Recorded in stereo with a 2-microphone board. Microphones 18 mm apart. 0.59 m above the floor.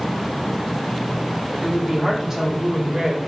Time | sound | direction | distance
1.6 | a woman speaking | 15° right (ahead or behind) | 1.1 m